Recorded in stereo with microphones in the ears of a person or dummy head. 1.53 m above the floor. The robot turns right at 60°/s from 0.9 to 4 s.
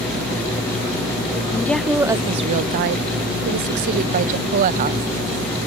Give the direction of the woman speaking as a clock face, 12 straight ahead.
7 o'clock.